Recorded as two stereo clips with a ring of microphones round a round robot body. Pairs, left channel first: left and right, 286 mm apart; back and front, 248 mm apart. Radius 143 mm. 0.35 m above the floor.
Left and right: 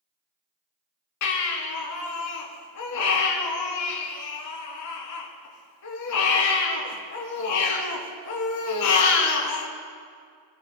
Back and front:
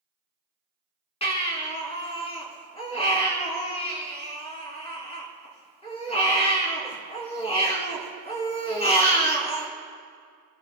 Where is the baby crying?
115° left, 3.5 m.